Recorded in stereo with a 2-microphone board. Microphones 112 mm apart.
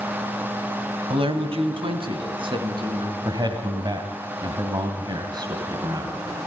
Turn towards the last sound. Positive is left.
turn(degrees=-40)  # may be behind; listen again after turning